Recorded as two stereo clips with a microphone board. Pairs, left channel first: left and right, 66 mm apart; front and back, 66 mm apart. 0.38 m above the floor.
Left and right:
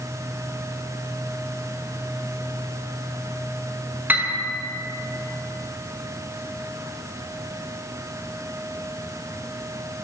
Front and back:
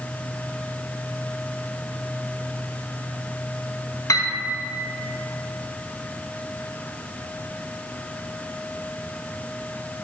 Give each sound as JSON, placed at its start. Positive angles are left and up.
{"t": 4.1, "sound": "a piano", "azimuth_deg": -30, "distance_m": 1.3}